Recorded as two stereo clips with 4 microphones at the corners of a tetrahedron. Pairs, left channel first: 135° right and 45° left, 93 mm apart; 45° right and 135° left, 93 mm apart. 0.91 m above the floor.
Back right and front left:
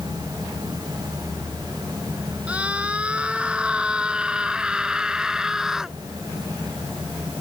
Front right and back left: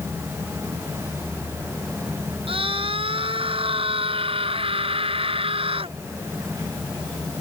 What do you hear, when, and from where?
2.5 s a scream: 120° left; by 6.0 s 130° left